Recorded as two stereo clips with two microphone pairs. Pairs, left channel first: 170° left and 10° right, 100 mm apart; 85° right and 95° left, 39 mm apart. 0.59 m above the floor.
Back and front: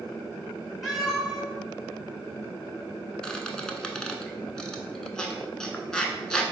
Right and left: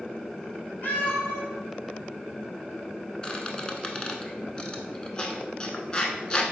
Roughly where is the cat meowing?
Right.